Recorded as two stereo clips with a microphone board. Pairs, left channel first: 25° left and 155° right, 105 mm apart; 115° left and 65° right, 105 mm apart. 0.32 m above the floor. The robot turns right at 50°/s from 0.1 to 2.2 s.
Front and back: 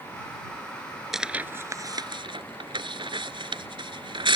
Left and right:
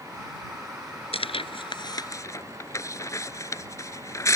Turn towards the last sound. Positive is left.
turn(degrees=170)